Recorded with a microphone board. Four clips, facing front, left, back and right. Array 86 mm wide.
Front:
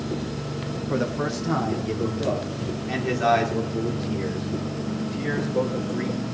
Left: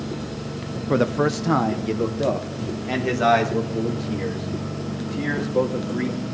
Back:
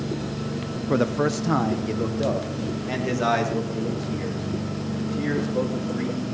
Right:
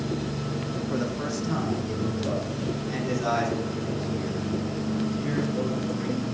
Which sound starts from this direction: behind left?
A man speaking, at 0.9 s.